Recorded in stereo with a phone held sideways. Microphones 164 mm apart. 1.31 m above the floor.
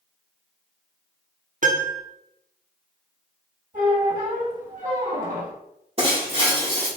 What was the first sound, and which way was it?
A piano, 55° right (ahead or behind).